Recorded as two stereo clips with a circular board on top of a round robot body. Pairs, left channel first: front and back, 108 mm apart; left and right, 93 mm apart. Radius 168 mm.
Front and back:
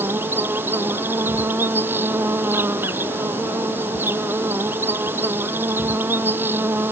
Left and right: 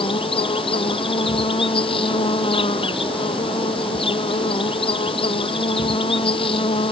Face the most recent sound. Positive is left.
turn(degrees=110)